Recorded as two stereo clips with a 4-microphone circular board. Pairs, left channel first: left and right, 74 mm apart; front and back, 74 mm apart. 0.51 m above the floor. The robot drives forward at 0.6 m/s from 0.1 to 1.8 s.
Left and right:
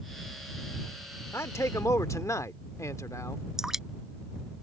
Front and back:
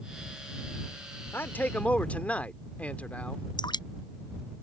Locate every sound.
1.3 s a man speaking: 50° left; by 3.4 s 65° left
3.6 s dripping: 5° right